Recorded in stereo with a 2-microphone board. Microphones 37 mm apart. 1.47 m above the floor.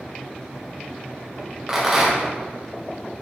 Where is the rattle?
5° right (ahead or behind), 0.7 m.